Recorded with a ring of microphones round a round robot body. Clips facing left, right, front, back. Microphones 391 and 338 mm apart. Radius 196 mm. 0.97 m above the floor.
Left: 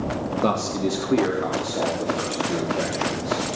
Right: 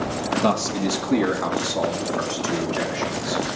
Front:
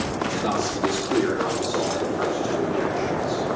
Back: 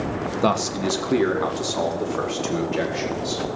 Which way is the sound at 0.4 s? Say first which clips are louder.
Even, back 3 dB; 160° right.